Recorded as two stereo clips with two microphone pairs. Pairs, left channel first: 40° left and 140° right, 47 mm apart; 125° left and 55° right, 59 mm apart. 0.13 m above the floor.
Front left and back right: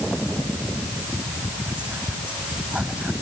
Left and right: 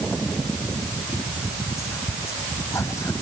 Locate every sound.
1.7 s whispering: 155° left